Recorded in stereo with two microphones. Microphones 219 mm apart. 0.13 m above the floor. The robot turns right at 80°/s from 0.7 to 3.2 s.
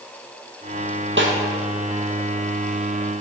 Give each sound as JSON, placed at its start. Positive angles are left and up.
{"t": 1.2, "sound": "a snare drum", "side_deg": -65, "distance_m": 2.0}